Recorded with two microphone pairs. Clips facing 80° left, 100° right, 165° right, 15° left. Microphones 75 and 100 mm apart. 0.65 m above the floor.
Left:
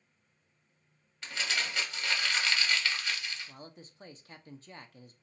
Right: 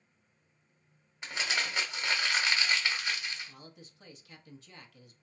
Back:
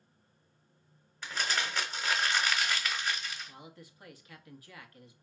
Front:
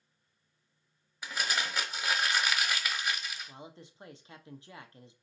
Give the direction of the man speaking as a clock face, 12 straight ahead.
10 o'clock.